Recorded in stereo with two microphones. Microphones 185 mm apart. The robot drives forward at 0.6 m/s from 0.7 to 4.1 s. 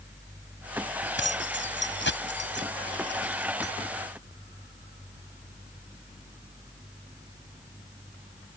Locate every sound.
1.2 s keys jangling: 85° left; by 3.7 s 75° left (ahead or behind)